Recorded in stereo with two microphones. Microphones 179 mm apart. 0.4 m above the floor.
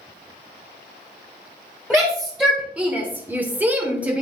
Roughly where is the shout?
Centre.